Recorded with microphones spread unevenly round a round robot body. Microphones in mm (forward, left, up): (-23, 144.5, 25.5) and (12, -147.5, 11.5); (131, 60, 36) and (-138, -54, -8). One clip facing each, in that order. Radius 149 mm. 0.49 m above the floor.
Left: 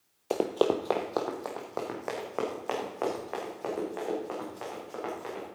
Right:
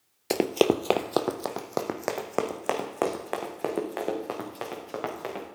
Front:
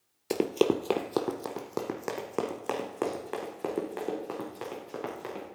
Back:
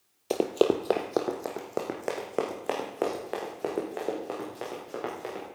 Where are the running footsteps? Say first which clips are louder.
Right 3 dB, back 1 dB; 40° right, 0.6 m; by 5.5 s 50° right, 4.5 m.